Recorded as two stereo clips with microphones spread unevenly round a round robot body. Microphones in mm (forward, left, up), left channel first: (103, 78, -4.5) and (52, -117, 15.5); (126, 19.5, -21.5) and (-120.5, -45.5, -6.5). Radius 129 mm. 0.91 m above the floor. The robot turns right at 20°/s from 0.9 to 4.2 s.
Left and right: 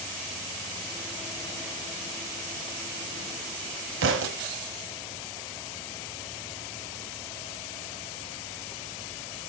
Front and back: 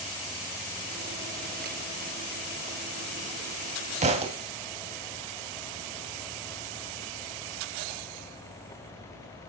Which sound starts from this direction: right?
A thud, at 4.0 s.